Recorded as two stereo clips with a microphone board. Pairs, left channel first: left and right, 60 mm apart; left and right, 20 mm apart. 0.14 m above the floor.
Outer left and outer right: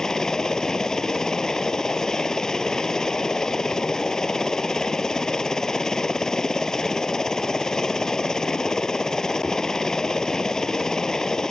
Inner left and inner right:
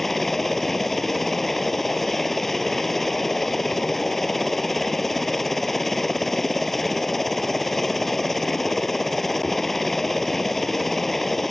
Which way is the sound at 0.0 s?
10° left (ahead or behind).